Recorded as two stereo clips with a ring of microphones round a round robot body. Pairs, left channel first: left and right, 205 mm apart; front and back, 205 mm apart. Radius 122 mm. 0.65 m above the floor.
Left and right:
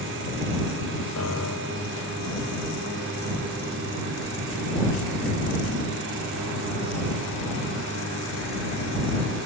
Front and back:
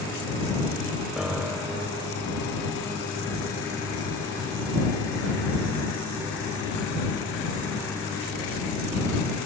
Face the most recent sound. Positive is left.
turn(degrees=95)